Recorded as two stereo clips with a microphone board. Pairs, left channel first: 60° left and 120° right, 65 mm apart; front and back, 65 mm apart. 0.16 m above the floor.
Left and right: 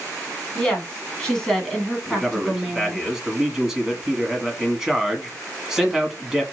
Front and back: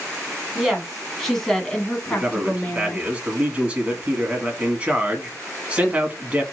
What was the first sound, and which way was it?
A woman speaking, 115° left.